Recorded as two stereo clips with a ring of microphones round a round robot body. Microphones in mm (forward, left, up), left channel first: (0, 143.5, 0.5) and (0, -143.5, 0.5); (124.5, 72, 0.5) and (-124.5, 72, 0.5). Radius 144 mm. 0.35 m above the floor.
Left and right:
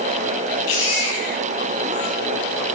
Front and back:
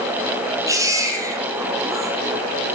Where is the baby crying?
105° left, 5 m.